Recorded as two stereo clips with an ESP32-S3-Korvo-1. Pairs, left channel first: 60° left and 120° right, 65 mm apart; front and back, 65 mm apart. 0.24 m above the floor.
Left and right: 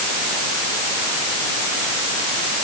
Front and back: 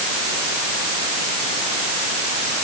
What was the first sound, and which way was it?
Only background noise.